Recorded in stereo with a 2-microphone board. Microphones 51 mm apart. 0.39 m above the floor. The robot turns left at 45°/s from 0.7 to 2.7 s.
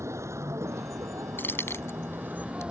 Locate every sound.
0.0 s a vehicle: 70° right; by 2.7 s 160° right
1.4 s keys jangling: 45° left (ahead or behind); by 2.6 s 70° left (ahead or behind)